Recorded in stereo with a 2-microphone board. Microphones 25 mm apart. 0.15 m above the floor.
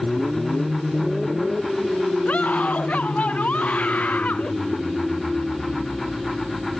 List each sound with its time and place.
2.2 s a scream: 80° left